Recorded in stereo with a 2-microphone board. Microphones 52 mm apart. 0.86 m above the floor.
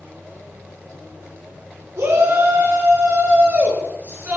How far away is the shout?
About 2 m.